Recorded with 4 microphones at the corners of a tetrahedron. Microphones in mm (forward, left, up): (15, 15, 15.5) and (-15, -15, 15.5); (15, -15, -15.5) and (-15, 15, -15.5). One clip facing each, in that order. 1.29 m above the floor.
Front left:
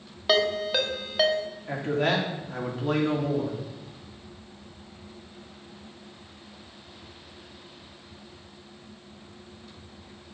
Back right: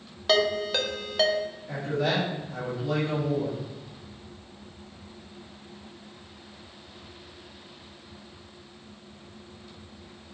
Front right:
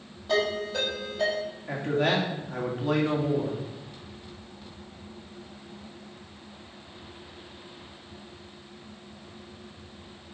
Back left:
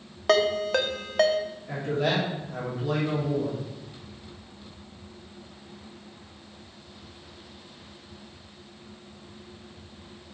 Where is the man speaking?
5° left, 2.5 m.